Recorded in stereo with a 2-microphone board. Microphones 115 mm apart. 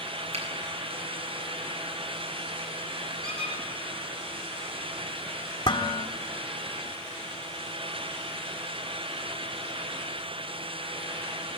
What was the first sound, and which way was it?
A finger snap, 65° right (ahead or behind).